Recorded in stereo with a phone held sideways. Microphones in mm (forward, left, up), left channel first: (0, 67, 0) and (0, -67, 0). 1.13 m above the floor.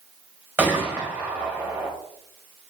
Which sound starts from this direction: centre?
A gunshot, at 0.6 s.